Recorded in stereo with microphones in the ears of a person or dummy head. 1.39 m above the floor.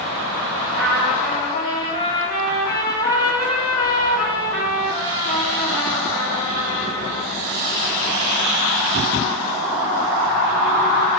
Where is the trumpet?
20° left (ahead or behind), 1.0 m.